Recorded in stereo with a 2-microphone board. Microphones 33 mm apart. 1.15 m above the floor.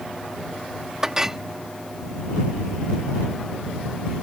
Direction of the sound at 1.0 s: 20° right (ahead or behind).